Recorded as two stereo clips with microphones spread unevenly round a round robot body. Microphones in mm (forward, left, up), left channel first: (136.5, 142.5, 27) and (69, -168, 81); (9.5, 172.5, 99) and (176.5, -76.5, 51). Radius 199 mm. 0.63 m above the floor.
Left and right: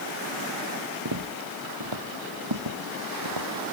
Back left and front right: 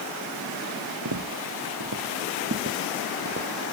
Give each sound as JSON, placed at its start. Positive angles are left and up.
{"t": 1.1, "sound": "footsteps", "azimuth_deg": -105}